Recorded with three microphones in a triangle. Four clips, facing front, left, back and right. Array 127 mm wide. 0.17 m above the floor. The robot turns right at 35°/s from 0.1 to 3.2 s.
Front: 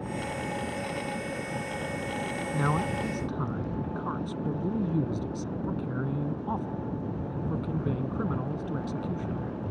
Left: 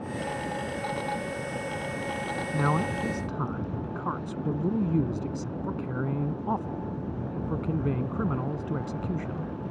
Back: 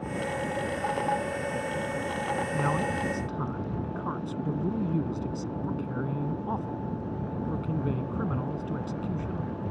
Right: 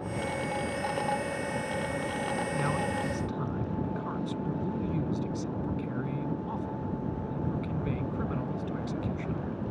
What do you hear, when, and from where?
2.5 s a man speaking: 60° left; by 9.5 s 85° left